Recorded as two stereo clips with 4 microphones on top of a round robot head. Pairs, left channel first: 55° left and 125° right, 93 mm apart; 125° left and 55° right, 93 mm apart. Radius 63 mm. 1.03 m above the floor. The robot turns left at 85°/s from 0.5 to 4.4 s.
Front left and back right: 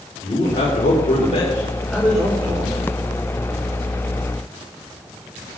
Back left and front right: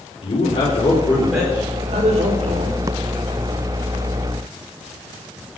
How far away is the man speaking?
About 4.5 m.